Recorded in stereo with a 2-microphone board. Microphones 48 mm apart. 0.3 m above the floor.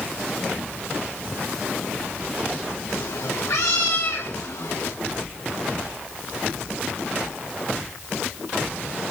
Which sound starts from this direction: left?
A cat meowing, at 2.9 s.